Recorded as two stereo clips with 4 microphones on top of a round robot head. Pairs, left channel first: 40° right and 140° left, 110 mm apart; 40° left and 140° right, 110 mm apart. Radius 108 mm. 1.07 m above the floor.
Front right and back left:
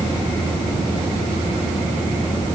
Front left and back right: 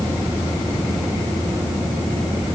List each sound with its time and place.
Only background noise.